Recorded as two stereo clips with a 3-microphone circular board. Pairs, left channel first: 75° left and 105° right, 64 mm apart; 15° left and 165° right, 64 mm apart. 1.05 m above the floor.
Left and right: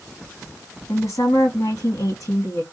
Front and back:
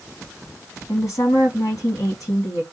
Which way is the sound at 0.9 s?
40° left.